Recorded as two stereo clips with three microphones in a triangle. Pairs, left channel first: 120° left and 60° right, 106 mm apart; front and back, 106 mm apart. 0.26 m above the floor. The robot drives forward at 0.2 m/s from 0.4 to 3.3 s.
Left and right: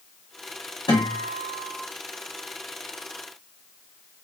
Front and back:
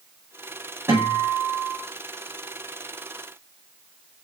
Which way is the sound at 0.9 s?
125° left.